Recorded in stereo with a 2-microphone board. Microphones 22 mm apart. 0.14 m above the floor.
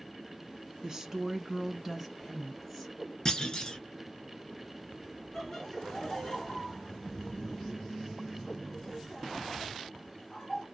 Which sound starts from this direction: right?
A woman speaking, at 0.8 s.